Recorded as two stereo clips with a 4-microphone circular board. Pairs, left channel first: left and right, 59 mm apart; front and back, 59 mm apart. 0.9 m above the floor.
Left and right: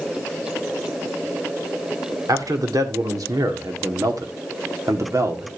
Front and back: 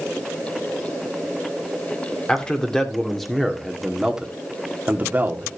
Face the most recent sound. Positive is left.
turn(degrees=-125)